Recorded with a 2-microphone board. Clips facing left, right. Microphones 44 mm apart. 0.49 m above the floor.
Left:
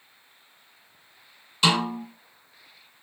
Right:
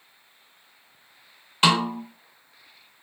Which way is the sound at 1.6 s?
50° right (ahead or behind).